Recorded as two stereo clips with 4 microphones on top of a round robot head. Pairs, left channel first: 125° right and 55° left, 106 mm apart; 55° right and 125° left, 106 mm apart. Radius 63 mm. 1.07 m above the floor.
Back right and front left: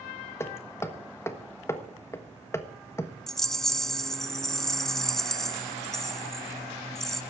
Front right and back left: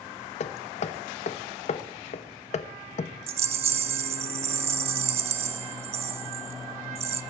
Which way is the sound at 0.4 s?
55° right.